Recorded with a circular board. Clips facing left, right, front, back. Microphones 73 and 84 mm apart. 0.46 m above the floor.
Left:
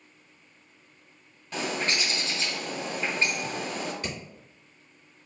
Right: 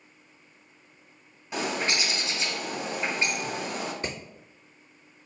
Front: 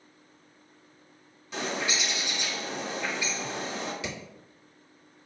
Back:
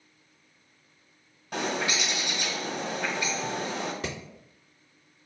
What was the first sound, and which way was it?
A bird, 160° right.